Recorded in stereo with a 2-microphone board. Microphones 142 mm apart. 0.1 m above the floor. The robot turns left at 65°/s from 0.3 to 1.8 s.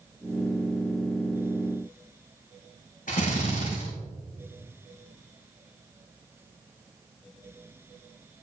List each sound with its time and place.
3.1 s a drill: 70° left (ahead or behind), 6 m